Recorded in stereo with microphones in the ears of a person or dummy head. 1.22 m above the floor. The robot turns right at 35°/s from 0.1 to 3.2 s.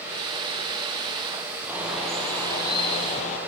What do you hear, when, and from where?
1.7 s a bird: 15° right, 5.5 m; by 3.4 s 40° left, 5.5 m